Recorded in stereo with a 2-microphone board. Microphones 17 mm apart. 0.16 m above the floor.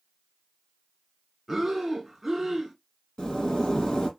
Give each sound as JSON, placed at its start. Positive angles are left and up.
{"t": 1.5, "sound": "breathing", "side_deg": -10, "distance_m": 1.5}
{"t": 3.2, "sound": "a zipper", "side_deg": 50, "distance_m": 2.0}